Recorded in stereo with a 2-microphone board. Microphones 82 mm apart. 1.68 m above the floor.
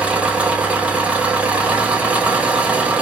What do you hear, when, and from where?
0.0 s an engine running: 15° right (ahead or behind), 1.1 m